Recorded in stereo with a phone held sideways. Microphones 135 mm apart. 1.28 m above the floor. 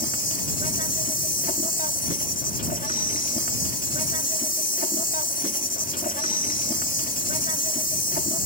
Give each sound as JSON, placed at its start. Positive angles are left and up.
{"t": 0.0, "sound": "an insect", "side_deg": 85}